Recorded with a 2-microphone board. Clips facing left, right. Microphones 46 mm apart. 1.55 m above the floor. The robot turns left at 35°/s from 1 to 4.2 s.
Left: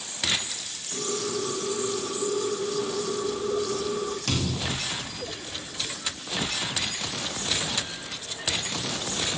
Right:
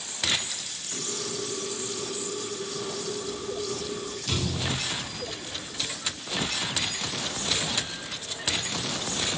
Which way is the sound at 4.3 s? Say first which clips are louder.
Left 1 dB; 60° left (ahead or behind).